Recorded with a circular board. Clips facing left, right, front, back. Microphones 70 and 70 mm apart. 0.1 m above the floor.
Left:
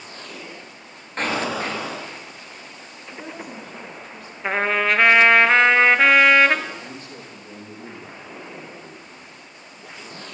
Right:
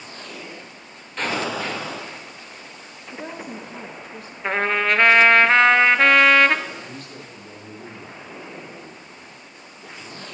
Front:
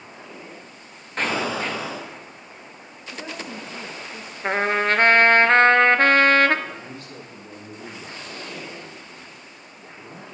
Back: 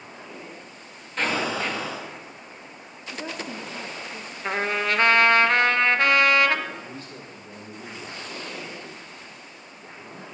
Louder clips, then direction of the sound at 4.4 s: Even, front 4 dB; 5° left.